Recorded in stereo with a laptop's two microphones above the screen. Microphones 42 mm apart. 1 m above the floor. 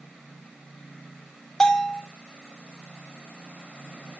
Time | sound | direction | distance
1.6 | a bell | 10° left (ahead or behind) | 2 m